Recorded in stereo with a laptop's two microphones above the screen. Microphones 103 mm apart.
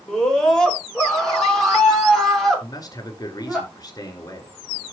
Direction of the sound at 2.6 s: 35° left (ahead or behind).